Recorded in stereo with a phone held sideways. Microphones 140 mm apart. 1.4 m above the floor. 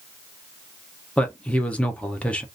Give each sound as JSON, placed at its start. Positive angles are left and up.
{"t": 1.2, "sound": "a man speaking", "side_deg": 10, "distance_m": 0.7}